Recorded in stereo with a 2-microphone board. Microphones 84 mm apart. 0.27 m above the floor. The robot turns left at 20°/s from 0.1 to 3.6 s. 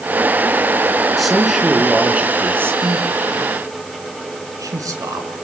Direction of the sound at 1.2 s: Centre (ahead or behind).